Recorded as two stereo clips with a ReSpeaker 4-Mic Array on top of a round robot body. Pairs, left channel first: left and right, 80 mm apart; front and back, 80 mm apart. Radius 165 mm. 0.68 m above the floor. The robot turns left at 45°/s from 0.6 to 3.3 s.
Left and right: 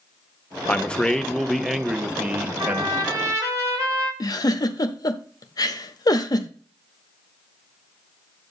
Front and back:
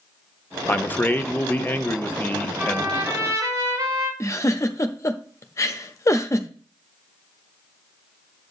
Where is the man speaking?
40° left, 1.0 m; by 3.0 s 65° right, 1.0 m.